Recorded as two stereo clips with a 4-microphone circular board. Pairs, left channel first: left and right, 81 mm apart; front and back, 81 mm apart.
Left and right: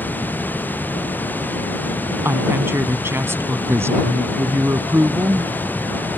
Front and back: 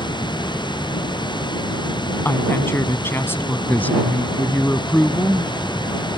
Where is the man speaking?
55° right.